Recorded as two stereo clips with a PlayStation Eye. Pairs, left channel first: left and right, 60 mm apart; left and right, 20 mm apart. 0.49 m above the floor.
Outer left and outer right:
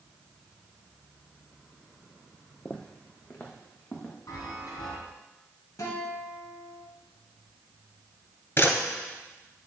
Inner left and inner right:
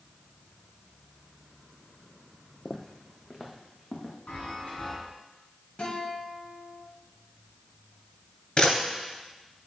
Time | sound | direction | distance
2.6 | footsteps | 20° left (ahead or behind) | 0.7 m
4.3 | a chime | 80° left | 2.5 m
5.8 | a guitar | 70° left (ahead or behind) | 2.5 m
8.6 | a camera shutter | 40° left (ahead or behind) | 2.5 m